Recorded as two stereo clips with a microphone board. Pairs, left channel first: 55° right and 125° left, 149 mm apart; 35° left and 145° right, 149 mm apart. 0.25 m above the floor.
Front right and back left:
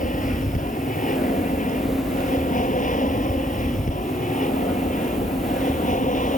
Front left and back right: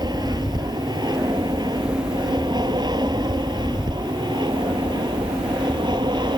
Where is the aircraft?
85° right.